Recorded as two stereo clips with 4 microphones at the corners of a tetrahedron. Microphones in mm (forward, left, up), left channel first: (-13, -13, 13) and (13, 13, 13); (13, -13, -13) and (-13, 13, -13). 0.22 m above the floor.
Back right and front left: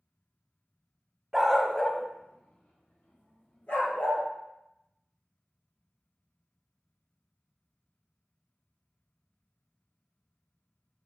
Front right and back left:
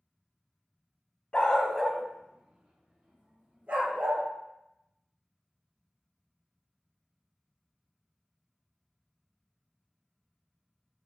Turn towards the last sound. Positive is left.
turn(degrees=-170)